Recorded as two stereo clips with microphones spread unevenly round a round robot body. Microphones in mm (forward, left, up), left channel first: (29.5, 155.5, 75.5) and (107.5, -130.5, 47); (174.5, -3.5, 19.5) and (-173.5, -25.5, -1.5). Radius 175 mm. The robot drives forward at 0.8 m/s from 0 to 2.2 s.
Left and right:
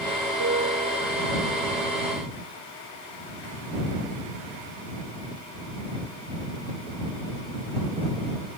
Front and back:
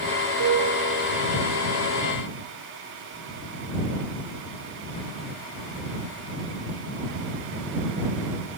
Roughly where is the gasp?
No gasp in this recording.